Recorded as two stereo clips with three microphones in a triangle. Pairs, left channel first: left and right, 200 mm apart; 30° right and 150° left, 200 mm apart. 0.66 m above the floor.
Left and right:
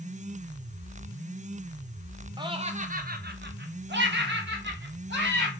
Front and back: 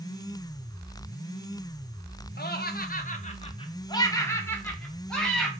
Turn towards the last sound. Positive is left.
turn(degrees=-115)